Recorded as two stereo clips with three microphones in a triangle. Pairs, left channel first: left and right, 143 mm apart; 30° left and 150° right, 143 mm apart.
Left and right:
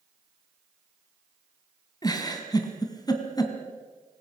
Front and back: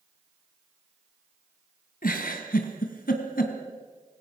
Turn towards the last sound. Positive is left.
turn(degrees=25)